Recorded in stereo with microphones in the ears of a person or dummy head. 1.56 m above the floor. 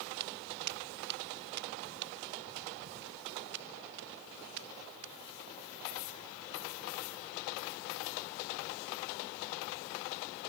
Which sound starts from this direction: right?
Footsteps, at 0.2 s.